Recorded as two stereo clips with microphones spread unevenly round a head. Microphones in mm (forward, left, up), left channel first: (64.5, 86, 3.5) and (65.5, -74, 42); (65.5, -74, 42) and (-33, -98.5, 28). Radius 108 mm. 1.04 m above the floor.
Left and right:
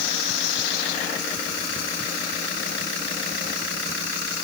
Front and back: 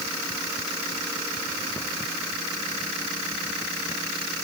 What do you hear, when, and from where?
Only background noise.